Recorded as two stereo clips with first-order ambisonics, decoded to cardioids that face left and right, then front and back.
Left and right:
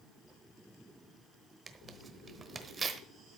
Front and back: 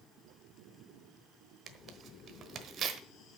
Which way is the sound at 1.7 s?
155° right.